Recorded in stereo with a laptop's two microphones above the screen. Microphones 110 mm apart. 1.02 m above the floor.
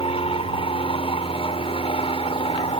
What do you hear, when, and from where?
0.0 s an aircraft: 55° left (ahead or behind)